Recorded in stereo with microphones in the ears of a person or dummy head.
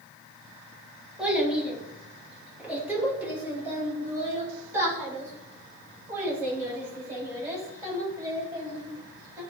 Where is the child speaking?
5° right (ahead or behind), 2.5 m; by 9.4 s 20° right (ahead or behind), 7.5 m.